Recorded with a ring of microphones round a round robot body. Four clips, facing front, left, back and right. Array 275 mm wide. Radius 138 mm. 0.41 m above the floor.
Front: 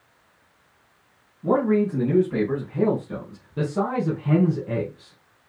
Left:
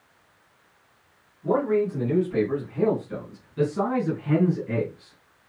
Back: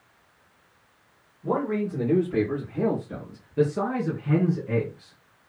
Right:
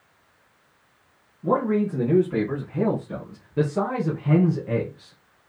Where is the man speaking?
45° right, 5 m; by 5.2 s 60° right, 3 m.